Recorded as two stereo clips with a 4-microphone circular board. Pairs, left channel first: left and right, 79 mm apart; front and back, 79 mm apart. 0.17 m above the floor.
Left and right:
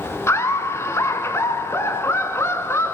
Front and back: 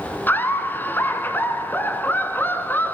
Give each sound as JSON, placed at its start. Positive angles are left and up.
{"t": 0.3, "sound": "laughter", "azimuth_deg": 55, "distance_m": 2.0}